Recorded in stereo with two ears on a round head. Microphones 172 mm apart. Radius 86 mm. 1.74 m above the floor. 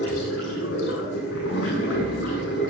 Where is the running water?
75° left (ahead or behind), 9 m.